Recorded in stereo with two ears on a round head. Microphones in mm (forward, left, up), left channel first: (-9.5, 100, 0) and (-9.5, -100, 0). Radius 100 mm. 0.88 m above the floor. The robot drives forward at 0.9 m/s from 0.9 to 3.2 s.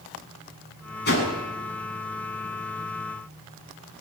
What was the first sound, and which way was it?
A whoosh, 45° left (ahead or behind).